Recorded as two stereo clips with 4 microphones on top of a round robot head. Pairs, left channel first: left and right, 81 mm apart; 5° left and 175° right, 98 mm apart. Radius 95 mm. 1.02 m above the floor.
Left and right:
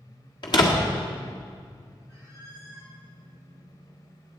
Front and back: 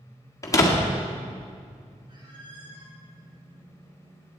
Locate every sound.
0.4 s a door slam: 65° left, 1.6 m
2.1 s a squeak: 145° left, 4 m